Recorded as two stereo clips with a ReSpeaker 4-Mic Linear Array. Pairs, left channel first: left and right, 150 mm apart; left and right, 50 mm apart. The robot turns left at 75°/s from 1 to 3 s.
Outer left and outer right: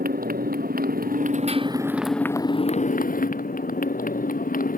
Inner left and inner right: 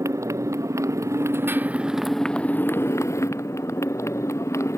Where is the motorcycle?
100° right; by 4.8 s 110° left.